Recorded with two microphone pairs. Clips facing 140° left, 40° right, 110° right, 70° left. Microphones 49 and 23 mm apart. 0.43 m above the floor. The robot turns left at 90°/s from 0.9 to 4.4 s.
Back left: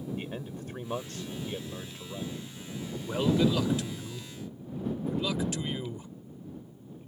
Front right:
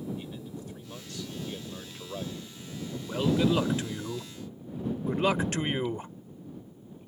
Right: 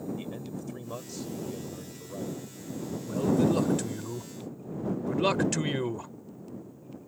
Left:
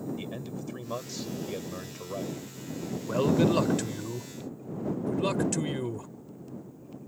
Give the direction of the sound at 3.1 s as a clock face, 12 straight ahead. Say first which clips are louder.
Even, left 1 dB; 10 o'clock.